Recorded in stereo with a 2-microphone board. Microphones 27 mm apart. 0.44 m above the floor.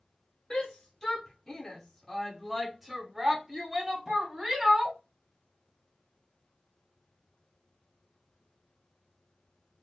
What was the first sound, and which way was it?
A shout, 30° left (ahead or behind).